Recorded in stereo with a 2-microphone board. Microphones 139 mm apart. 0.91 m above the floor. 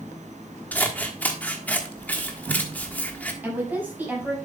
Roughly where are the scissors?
Centre.